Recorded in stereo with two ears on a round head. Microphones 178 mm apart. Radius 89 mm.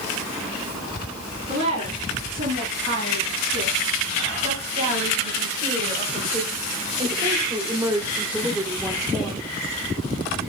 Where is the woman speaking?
35° right (ahead or behind), 5.5 m; by 9.4 s 5° left (ahead or behind), 1.2 m.